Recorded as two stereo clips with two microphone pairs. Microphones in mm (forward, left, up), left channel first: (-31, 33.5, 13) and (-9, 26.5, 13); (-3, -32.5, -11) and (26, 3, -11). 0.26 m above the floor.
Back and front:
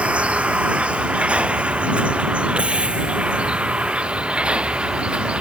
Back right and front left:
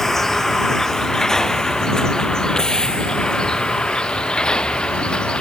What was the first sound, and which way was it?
A vehicle, 45° right.